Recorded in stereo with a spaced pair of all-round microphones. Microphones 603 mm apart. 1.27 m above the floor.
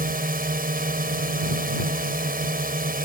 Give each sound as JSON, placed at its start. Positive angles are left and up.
{"t": 0.0, "sound": "a drone", "side_deg": -15}